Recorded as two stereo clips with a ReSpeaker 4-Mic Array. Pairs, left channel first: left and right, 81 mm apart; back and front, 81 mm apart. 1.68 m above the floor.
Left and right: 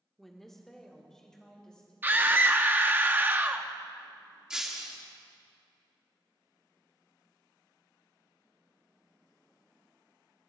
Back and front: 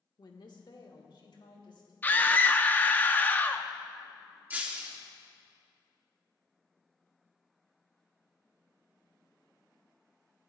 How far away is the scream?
About 0.6 m.